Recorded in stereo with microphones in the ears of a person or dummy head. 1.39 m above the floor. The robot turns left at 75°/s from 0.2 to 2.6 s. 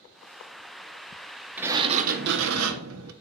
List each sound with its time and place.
1.6 s a sliding door: 10° right, 0.9 m; by 3.1 s 85° right, 0.9 m